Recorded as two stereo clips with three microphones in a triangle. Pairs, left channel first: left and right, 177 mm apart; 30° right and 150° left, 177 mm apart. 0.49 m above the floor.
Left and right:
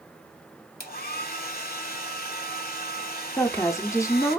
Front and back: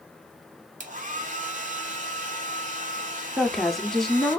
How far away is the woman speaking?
About 0.8 m.